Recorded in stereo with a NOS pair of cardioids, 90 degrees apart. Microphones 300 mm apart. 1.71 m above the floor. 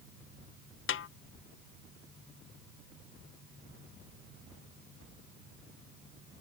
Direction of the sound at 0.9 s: 45° left.